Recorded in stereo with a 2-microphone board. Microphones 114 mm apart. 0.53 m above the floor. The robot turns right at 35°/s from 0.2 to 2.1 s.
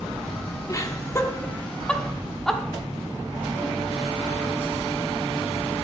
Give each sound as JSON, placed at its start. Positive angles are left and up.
{"t": 0.7, "sound": "laughter", "side_deg": 30, "distance_m": 1.0}